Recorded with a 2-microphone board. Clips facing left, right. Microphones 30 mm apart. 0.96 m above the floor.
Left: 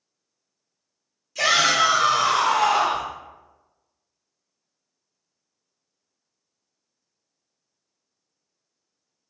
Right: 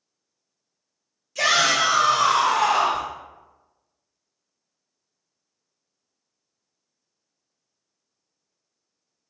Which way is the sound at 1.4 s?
Centre (ahead or behind).